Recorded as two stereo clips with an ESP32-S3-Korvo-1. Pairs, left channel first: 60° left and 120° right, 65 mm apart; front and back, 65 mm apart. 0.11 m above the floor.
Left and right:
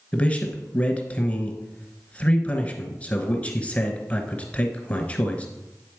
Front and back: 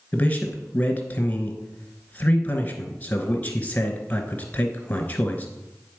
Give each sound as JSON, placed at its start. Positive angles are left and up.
{"t": 0.1, "sound": "a man speaking", "azimuth_deg": 20, "distance_m": 1.1}